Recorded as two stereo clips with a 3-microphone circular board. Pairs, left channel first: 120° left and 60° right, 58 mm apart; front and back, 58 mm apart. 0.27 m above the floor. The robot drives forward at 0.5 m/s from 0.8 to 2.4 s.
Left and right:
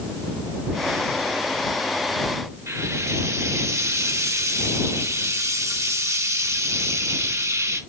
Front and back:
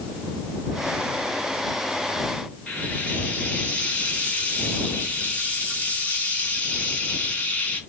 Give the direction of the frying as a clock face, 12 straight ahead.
2 o'clock.